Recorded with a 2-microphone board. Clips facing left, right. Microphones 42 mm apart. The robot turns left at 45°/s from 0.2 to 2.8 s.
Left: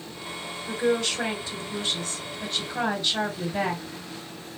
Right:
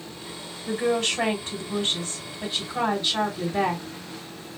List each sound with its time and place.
0.7 s a woman speaking: 80° right, 2.5 m; by 3.8 s 175° right, 2.5 m